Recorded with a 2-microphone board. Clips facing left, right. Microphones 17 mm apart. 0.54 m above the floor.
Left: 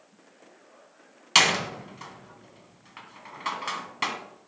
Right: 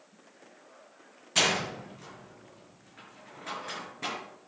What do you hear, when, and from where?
1.4 s a door slam: 80° left, 3 m